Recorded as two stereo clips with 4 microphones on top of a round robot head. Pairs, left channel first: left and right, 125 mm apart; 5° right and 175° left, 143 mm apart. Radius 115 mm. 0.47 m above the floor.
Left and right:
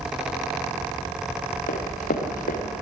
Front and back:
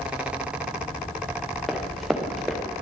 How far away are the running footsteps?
About 4.5 m.